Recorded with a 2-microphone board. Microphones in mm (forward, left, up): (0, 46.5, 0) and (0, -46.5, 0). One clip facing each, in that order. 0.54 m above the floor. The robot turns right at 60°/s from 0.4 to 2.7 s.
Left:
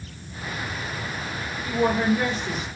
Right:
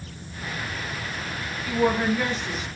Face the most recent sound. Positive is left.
turn(degrees=110)